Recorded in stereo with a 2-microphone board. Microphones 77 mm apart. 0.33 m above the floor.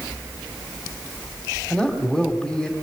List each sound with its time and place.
1.7 s a man speaking: 5° left (ahead or behind), 2.5 m